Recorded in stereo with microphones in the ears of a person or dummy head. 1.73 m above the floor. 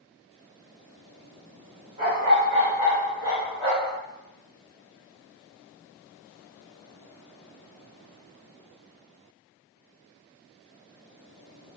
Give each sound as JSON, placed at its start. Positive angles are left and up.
{"t": 2.0, "sound": "a dog barking", "side_deg": -25, "distance_m": 1.2}